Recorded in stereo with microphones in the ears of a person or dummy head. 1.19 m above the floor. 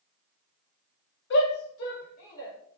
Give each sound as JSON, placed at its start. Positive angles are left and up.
{"t": 1.3, "sound": "a shout", "side_deg": 70, "distance_m": 0.8}